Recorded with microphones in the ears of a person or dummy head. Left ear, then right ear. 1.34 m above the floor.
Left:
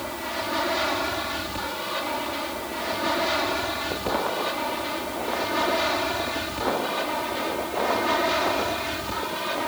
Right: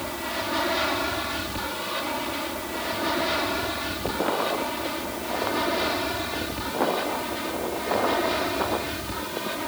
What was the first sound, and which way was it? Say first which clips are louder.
An aircraft: even; 10° left (ahead or behind).